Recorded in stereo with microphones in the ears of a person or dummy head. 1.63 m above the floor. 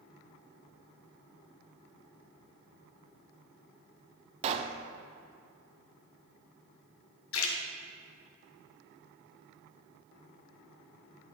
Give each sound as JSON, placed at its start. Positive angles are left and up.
{"t": 4.4, "sound": "a pop", "side_deg": -30, "distance_m": 0.6}
{"t": 7.3, "sound": "a splash", "side_deg": 75, "distance_m": 1.0}